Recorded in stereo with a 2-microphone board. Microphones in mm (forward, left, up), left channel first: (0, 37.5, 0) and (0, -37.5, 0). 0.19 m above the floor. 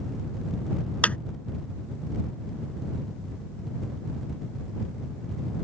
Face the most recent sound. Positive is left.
turn(degrees=20)  # may be behind; listen again after turning